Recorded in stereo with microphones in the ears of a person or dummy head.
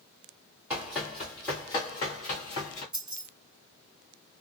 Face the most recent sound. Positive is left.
turn(degrees=-5)  # may be behind; listen again after turning